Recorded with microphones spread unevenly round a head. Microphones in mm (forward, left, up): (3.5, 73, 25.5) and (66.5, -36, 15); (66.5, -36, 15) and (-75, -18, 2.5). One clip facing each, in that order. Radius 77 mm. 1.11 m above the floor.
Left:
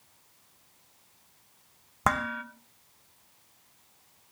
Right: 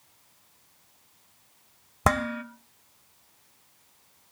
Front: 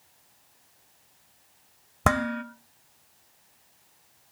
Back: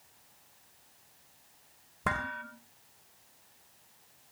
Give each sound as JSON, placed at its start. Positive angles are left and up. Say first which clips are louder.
{"t": 2.0, "sound": "dishes clattering", "louder": "right 3 dB, front 10 dB", "azimuth_deg": -5, "distance_m": 1.2}